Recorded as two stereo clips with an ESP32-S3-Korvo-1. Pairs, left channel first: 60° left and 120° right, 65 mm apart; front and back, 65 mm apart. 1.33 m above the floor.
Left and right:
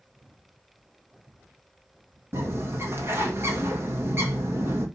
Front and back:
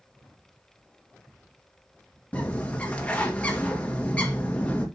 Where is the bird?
70° right, 2 m.